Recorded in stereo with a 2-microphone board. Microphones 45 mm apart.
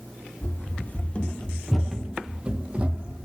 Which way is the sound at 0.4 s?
50° left (ahead or behind).